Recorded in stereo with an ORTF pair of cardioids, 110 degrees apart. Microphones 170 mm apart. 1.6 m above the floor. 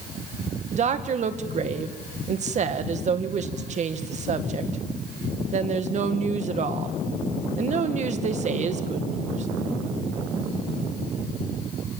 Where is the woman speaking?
45° right, 1.9 m.